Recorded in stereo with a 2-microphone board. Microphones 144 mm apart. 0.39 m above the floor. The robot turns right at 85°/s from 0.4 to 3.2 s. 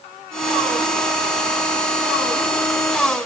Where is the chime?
I don't hear a chime.